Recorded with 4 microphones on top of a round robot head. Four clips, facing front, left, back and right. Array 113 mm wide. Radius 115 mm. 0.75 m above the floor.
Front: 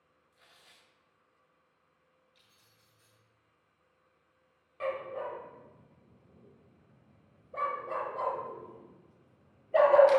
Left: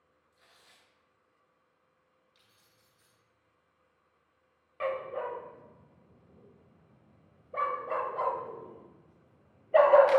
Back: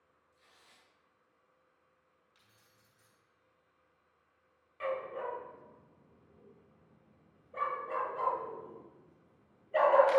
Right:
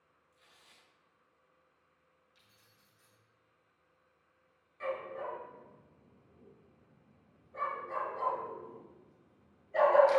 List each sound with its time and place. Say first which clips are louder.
0.3 s tearing paper: left 2 dB, front 2 dB; 25° left, 4 m
2.4 s keys jangling: left 1 dB, even; 155° left, 5 m
4.8 s a dog barking: left 5 dB, front 1 dB; 70° left, 1.4 m